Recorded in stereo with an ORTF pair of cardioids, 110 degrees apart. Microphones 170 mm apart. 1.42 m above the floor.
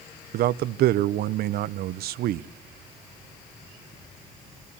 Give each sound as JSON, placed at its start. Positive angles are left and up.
{"t": 0.3, "sound": "a man speaking", "azimuth_deg": -65, "distance_m": 0.6}